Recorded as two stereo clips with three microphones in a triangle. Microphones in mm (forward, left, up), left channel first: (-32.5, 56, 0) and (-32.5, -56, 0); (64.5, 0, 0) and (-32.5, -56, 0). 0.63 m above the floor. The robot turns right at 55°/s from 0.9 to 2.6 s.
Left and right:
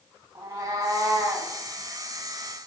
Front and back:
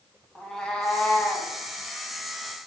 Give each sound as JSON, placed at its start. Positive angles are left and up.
{"t": 0.3, "sound": "a cat meowing", "azimuth_deg": -55, "distance_m": 0.6}